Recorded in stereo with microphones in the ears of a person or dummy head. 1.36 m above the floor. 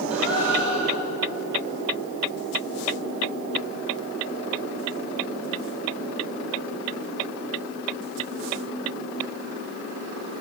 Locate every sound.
0.1 s a gasp: 85° right, 5.5 m